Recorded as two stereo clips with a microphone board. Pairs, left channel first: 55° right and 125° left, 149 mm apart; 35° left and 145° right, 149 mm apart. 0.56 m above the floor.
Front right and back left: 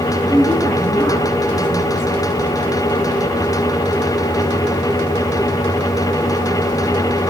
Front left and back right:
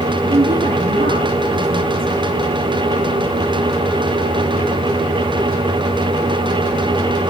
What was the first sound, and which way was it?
A woman speaking, 130° right.